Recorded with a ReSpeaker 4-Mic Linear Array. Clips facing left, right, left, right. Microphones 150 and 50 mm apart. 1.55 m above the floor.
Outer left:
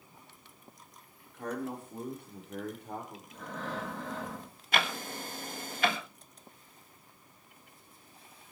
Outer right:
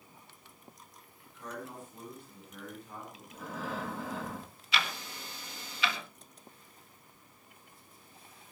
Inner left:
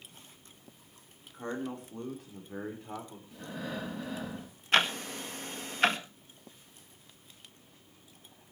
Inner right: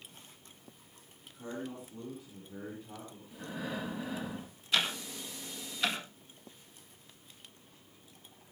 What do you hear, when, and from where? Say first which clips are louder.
1.3 s a man speaking: outer left 7 dB, inner left 4 dB; 60° left (ahead or behind), 4.5 m; by 3.2 s 65° left (ahead or behind), 6 m
3.3 s breathing: even, even; 10° right (ahead or behind), 6 m
4.7 s ticking: outer left 4 dB, inner left 5 dB; 50° left (ahead or behind), 1.7 m